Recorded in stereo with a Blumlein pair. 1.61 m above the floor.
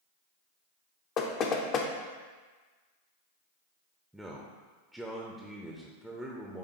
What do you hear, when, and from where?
1.2 s knocking: 30° left, 0.6 m
4.1 s a man speaking: 5° right, 0.6 m